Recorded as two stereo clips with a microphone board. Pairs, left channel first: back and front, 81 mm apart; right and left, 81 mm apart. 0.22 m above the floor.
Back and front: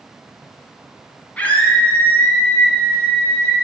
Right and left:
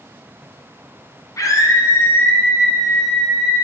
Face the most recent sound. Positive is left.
turn(degrees=145)